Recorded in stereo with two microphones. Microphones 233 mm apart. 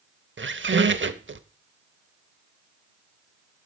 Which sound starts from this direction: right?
A squeak, at 0.4 s.